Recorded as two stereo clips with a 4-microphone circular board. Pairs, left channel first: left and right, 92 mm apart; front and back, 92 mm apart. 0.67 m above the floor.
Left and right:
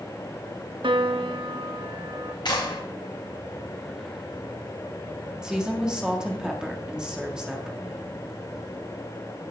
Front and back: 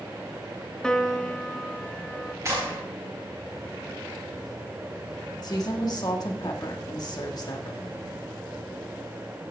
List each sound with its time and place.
0.8 s a piano: 80° right, 0.7 m
2.5 s a clap: 125° left, 4 m
5.4 s a woman speaking: 10° right, 1.6 m